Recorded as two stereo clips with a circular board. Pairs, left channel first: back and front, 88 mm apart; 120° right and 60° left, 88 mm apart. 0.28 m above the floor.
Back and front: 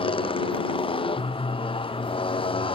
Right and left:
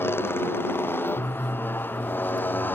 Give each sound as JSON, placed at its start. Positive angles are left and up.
{"t": 0.0, "sound": "a motorcycle", "azimuth_deg": 175}